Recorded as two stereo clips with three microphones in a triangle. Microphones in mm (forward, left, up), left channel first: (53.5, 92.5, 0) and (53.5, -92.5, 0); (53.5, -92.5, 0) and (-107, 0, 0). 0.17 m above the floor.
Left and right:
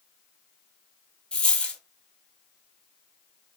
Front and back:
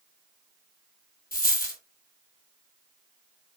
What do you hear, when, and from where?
1.3 s a dropped coin: 5° left, 0.8 m